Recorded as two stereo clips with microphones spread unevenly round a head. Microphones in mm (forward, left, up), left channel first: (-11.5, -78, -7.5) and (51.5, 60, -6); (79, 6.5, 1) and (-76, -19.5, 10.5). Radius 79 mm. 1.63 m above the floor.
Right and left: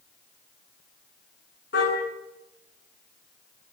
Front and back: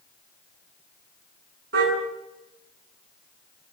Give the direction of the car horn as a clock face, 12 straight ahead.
5 o'clock.